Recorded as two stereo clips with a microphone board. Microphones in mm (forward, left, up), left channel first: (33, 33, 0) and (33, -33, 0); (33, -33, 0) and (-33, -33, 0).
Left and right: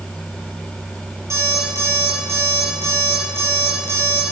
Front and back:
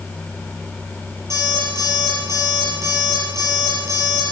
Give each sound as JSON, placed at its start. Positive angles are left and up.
{"t": 1.3, "sound": "an alarm clock", "azimuth_deg": -135, "distance_m": 6.5}